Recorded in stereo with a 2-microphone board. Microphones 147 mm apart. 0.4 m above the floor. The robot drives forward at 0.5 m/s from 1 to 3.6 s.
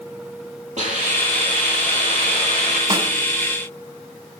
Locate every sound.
0.8 s a hiss: 55° right (ahead or behind), 9.5 m; by 2.8 s 50° right (ahead or behind), 10.5 m
2.9 s a snare drum: 35° right (ahead or behind), 1.9 m